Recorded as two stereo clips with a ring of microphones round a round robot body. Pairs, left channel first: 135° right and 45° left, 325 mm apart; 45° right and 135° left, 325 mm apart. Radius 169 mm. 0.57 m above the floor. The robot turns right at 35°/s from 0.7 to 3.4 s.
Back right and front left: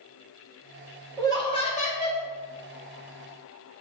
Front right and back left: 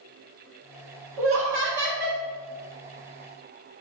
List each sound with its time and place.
1.2 s laughter: 145° left, 1.0 m; by 2.2 s 175° right, 1.0 m